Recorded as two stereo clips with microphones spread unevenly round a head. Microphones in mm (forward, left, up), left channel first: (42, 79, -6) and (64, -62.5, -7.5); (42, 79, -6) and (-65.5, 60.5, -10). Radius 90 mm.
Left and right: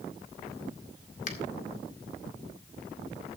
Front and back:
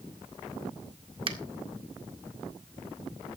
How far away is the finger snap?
About 1.9 m.